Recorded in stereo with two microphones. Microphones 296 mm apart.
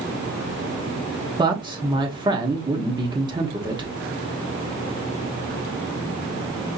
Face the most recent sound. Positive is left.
turn(degrees=-15)  # may be behind; listen again after turning